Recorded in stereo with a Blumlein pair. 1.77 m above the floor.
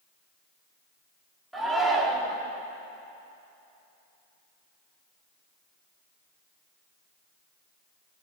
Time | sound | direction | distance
1.5 | a shout | 5° right | 5 m